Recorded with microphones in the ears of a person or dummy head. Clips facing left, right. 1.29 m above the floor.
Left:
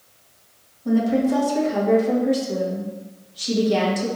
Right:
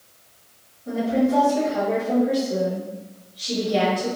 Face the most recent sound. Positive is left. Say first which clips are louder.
# left 2 dB
turn(degrees=80)